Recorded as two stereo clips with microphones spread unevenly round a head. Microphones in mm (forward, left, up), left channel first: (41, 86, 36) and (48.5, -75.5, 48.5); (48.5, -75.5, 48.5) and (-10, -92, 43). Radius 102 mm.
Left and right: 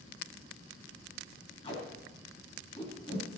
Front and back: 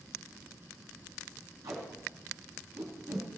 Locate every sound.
1.6 s tape being pulled: 155° left, 2.0 m